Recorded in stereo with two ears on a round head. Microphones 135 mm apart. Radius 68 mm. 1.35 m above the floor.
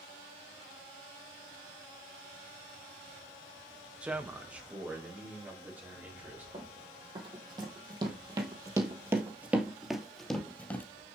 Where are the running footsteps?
30° right (ahead or behind), 3 m; by 10.8 s 15° left (ahead or behind), 1.6 m.